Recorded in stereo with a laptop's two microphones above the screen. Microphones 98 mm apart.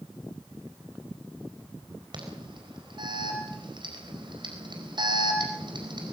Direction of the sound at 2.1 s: 50° right (ahead or behind).